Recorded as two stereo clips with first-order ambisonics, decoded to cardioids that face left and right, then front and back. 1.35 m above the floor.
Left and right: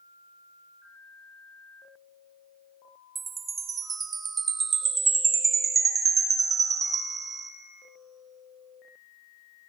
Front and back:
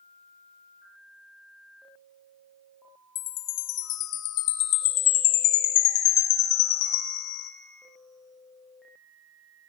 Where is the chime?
20° right, 0.7 m.